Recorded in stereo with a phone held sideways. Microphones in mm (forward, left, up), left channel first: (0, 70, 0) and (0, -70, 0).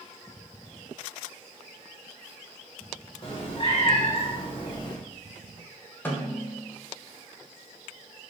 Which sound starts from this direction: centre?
A snare drum, at 6.0 s.